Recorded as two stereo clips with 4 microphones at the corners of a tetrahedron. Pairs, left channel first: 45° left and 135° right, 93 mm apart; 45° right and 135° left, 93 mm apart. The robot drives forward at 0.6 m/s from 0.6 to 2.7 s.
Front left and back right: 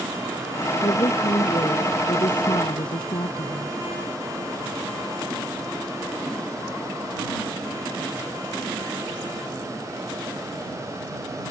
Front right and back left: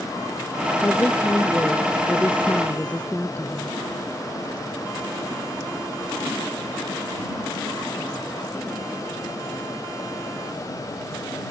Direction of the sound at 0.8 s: 20° left.